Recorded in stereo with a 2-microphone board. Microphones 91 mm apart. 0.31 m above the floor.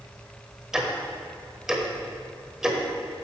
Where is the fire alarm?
No fire alarm in this recording.